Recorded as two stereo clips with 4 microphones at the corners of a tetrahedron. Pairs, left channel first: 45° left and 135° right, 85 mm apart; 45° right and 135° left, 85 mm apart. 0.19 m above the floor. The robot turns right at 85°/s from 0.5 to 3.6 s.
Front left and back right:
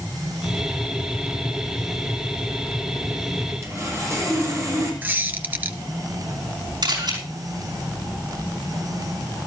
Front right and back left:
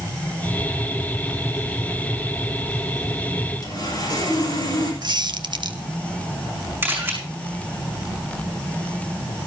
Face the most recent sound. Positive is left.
turn(degrees=-160)